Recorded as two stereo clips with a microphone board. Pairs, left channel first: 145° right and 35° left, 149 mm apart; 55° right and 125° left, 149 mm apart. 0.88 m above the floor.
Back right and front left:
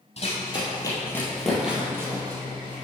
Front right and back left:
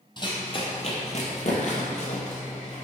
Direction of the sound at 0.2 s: 110° right.